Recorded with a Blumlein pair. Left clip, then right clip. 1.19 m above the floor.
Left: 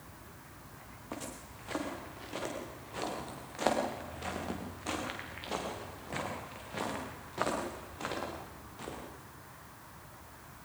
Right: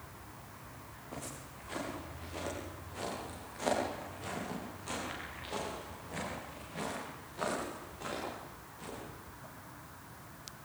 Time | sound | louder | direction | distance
1.1 | footsteps | left 2 dB | 30° left | 8.5 m